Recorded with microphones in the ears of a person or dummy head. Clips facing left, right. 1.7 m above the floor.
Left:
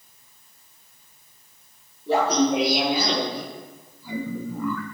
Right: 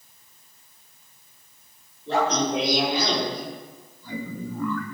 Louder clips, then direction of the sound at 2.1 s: Left 3 dB; 10° left (ahead or behind).